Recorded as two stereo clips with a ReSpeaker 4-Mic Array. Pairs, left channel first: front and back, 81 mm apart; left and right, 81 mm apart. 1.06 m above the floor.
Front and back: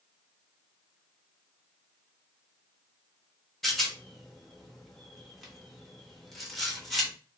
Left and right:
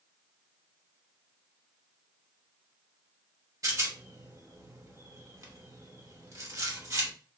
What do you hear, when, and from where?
3.6 s a rattle: 90° right, 0.9 m